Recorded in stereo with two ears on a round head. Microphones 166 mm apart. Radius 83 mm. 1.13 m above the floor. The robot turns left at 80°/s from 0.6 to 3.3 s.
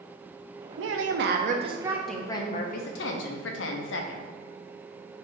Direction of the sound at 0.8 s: 75° right.